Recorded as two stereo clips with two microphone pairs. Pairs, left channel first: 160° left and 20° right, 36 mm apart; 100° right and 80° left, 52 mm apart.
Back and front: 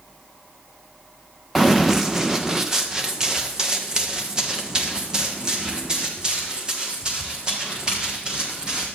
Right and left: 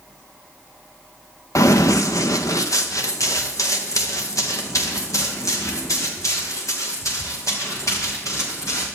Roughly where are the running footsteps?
Right.